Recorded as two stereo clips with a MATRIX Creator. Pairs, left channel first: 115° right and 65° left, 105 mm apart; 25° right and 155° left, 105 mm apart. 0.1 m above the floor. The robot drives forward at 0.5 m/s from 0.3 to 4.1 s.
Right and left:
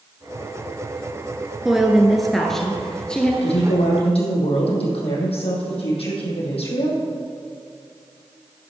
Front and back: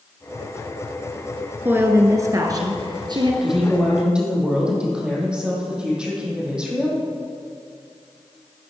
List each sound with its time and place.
1.6 s a woman speaking: 145° left, 1.1 m; by 3.3 s 170° left, 1.5 m
3.4 s a woman speaking: 115° right, 3.5 m; by 7.0 s 120° right, 3.5 m